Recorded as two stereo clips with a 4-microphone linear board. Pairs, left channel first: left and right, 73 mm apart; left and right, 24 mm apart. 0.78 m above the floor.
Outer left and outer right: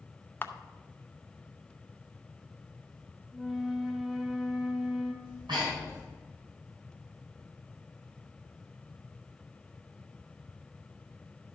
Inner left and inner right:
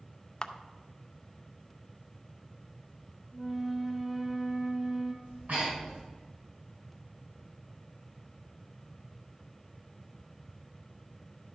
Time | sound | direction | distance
0.4 | a camera shutter | 30° left (ahead or behind) | 0.6 m
3.3 | a flute | centre (ahead or behind) | 0.8 m
5.2 | breathing | 85° right | 4 m